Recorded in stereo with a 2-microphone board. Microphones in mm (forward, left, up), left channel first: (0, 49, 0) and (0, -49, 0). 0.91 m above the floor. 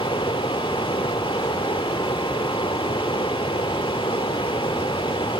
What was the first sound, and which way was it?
Running water, 70° left (ahead or behind).